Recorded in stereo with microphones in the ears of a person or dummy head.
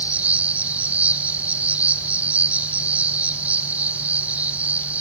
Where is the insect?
10° right (ahead or behind), 1.3 m.